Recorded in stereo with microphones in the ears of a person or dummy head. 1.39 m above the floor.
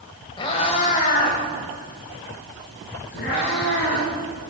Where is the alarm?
No alarm in this recording.